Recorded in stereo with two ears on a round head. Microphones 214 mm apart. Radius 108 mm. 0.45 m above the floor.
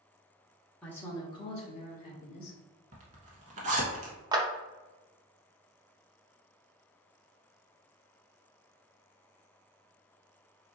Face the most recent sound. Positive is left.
turn(degrees=-20)  # may be behind; listen again after turning